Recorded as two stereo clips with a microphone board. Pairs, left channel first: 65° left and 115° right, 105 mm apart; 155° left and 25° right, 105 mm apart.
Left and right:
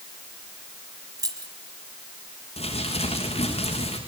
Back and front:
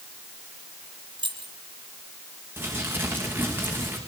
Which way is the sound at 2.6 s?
50° left.